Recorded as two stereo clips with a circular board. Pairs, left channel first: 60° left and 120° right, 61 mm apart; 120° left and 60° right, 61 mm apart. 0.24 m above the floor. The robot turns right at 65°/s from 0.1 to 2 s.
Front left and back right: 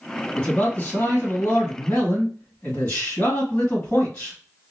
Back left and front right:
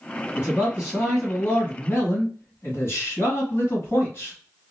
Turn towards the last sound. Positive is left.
turn(degrees=105)